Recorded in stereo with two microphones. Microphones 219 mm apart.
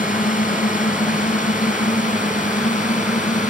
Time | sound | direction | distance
0.0 | a drone | 35° left (ahead or behind) | ?